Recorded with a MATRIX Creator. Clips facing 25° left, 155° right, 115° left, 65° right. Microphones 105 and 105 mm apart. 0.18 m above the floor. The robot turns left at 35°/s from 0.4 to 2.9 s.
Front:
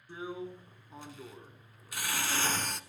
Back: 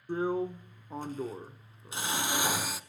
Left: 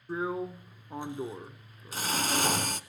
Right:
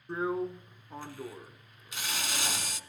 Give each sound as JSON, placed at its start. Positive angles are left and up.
{"t": 0.1, "sound": "a drill", "azimuth_deg": -160, "distance_m": 0.9}